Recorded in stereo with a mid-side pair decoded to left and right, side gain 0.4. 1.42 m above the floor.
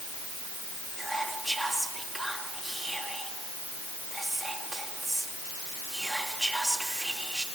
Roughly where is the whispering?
Ahead.